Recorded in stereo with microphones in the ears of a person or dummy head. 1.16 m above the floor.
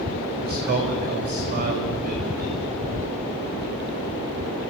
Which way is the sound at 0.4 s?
45° right (ahead or behind).